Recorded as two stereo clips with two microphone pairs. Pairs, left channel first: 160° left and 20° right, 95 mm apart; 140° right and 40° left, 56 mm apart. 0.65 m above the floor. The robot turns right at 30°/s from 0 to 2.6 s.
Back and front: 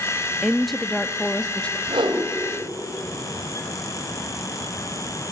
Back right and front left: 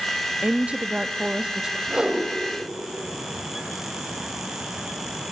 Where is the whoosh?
40° right, 1.7 m; by 2.2 s 30° right, 1.7 m.